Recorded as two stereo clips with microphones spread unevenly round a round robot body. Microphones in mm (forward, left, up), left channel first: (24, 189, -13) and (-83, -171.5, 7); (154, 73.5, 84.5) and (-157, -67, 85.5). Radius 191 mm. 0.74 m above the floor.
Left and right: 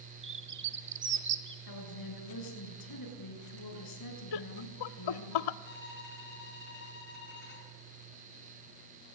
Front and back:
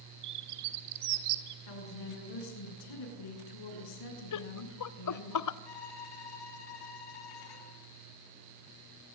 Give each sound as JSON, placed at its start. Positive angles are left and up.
{"t": 0.2, "sound": "a bird", "azimuth_deg": -170, "distance_m": 2.5}
{"t": 1.7, "sound": "a woman speaking", "azimuth_deg": 35, "distance_m": 8.5}
{"t": 4.3, "sound": "laughter", "azimuth_deg": 55, "distance_m": 1.5}
{"t": 5.7, "sound": "a violin", "azimuth_deg": 10, "distance_m": 6.5}